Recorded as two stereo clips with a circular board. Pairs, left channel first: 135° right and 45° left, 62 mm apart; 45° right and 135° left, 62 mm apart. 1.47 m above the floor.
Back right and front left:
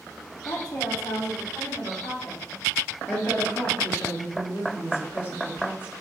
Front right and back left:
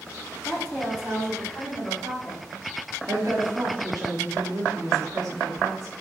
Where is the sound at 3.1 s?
170° left, 0.9 m.